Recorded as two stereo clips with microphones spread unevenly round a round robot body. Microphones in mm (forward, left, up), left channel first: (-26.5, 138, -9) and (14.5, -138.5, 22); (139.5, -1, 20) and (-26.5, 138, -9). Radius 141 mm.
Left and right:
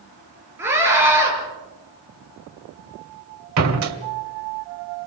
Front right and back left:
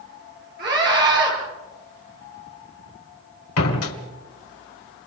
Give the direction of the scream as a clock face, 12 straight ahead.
5 o'clock.